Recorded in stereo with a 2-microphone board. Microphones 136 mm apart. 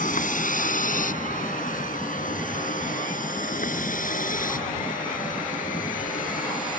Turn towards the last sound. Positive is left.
turn(degrees=80)